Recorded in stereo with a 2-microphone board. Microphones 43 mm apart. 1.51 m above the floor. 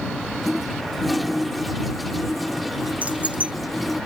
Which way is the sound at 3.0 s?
35° right (ahead or behind).